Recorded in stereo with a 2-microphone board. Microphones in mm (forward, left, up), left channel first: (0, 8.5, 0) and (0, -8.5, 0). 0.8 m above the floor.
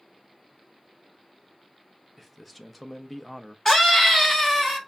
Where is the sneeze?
No sneeze in this recording.